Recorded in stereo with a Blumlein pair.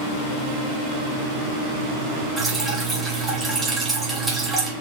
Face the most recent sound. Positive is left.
turn(degrees=-10)